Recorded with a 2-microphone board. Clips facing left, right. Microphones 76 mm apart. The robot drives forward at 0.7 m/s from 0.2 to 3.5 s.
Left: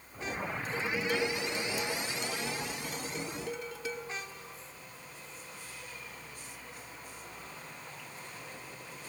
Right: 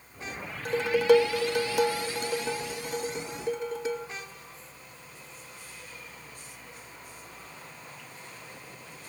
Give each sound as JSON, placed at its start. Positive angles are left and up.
{"t": 0.7, "sound": "dishes clattering", "side_deg": -65, "distance_m": 0.9}